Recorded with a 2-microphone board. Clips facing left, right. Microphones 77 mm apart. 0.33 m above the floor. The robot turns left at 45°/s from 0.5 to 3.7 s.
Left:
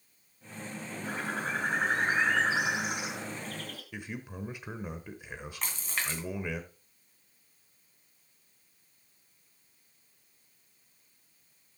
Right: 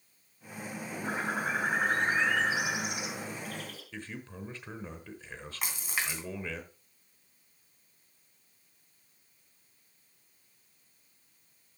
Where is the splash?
10° right (ahead or behind), 2 m.